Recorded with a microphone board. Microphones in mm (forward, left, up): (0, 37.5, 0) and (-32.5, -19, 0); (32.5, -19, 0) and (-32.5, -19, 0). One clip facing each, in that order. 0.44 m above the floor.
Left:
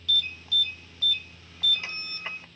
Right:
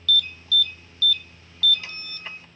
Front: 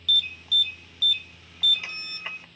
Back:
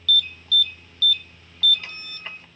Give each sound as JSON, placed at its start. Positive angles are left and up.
{"t": 0.1, "sound": "an alarm", "azimuth_deg": 60, "distance_m": 0.6}